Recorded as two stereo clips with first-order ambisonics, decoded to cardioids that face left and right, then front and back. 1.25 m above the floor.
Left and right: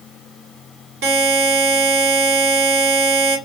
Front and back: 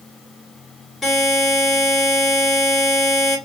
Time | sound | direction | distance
1.0 | a buzzer | 85° right | 2.0 m